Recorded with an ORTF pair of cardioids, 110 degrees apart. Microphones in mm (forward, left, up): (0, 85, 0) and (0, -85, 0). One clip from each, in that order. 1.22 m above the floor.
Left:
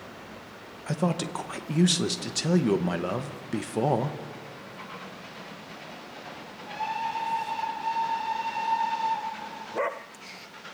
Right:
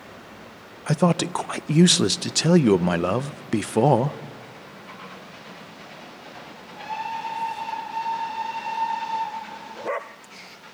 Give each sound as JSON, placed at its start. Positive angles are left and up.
{"t": 0.9, "sound": "a man speaking", "azimuth_deg": -30, "distance_m": 0.7}